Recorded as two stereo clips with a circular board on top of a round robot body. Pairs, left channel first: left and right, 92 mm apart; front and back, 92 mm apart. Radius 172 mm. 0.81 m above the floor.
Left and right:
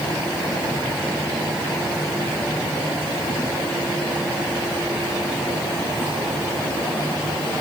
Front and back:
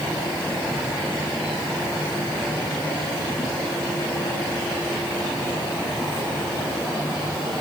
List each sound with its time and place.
Only background noise.